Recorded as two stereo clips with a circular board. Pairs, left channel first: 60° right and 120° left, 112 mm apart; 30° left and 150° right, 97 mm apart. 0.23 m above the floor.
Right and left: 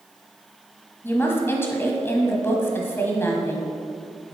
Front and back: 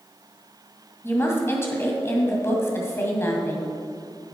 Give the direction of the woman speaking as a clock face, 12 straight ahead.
12 o'clock.